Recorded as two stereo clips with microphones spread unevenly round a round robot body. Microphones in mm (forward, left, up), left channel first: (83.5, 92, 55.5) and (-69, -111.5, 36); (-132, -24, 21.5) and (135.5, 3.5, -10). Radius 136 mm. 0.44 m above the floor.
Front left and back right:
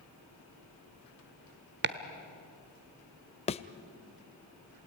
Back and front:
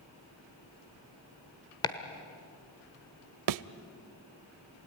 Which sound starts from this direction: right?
Chopping, at 1.8 s.